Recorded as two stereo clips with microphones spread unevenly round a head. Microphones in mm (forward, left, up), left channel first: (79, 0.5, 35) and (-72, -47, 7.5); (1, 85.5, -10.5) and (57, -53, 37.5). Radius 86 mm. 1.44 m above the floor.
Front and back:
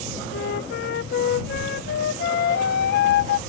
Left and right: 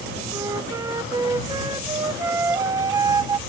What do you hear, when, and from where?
0.3 s a flute: 5° right